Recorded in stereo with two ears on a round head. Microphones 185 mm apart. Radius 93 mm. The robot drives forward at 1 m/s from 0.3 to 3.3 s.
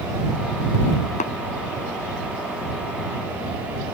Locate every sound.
1.2 s tapping: 35° left (ahead or behind)